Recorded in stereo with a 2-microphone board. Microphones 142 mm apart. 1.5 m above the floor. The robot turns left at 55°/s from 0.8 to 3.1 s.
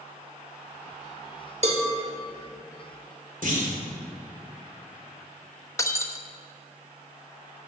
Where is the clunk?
70° right (ahead or behind), 3 m.